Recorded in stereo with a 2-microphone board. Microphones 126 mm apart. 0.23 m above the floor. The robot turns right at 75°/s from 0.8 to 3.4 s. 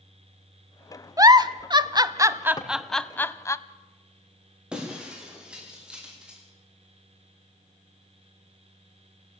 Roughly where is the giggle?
Right.